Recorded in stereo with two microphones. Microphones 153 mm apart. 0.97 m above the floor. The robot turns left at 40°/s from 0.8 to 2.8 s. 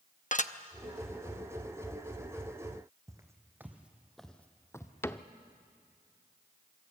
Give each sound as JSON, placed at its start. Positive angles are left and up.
{"t": 0.3, "sound": "dishes clattering", "side_deg": 55, "distance_m": 0.7}
{"t": 3.1, "sound": "footsteps", "side_deg": -20, "distance_m": 2.0}
{"t": 5.0, "sound": "a cupboard door", "side_deg": 15, "distance_m": 0.7}